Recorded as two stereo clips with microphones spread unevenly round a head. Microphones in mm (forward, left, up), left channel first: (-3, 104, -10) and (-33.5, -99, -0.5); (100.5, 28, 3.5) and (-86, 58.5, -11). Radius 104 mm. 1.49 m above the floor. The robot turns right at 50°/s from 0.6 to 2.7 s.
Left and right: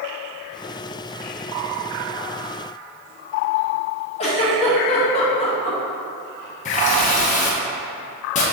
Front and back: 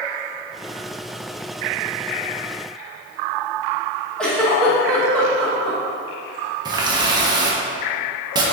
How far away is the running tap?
About 0.6 m.